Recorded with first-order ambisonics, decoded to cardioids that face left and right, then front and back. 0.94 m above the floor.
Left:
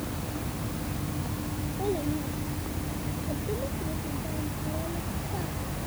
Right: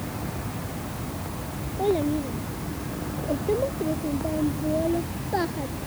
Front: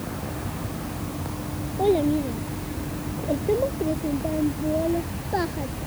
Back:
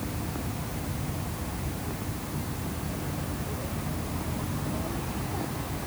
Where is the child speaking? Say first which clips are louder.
Right 7 dB, front 16 dB; 25° right; by 5.7 s 45° right.